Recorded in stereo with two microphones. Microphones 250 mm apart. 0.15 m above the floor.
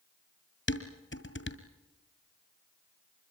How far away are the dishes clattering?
About 1.9 m.